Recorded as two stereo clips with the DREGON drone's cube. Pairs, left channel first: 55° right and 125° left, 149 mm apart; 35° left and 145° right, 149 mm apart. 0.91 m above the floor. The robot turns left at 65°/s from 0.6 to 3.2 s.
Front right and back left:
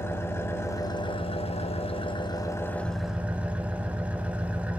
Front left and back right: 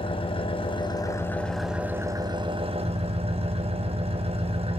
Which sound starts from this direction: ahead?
An engine running, at 0.0 s.